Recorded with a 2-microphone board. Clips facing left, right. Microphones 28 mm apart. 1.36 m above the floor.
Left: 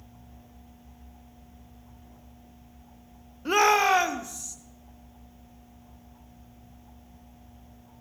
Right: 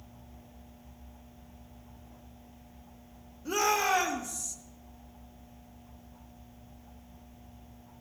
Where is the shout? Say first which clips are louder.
Left 7 dB; 45° left (ahead or behind), 0.6 m; by 4.5 s 10° left (ahead or behind), 1.2 m.